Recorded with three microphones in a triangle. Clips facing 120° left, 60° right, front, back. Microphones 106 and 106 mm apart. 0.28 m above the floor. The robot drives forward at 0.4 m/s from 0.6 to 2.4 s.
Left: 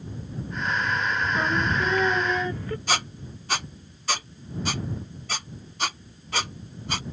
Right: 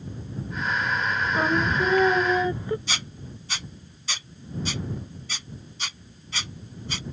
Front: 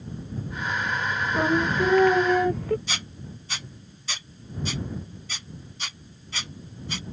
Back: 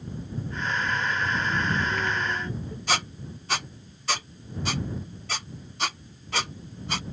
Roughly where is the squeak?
Behind left.